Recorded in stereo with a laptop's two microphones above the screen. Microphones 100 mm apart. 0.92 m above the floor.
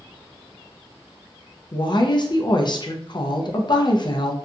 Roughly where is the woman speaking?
Left.